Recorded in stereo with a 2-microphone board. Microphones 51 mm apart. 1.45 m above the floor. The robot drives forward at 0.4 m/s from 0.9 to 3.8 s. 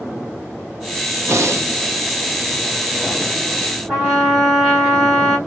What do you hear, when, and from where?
1.3 s breathing: 70° right (ahead or behind), 0.7 m
3.9 s a trumpet: 5° right (ahead or behind), 2 m